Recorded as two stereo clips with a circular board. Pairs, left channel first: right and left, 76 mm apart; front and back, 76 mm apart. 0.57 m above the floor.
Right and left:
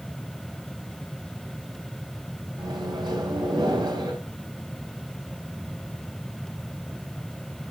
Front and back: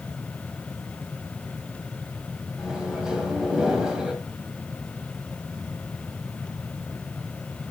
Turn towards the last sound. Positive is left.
turn(degrees=100)